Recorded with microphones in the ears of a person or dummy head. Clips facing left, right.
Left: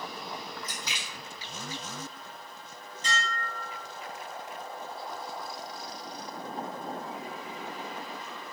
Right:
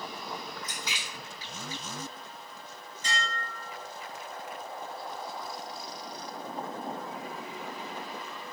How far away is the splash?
About 1.5 m.